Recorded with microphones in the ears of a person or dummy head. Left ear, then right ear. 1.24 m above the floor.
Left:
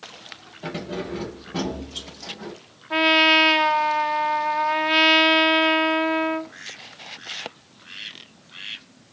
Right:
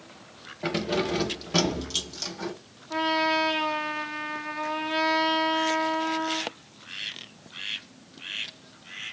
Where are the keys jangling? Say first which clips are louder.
Right 4 dB; 15° right (ahead or behind), 0.9 m; by 2.5 s 85° right, 1.9 m.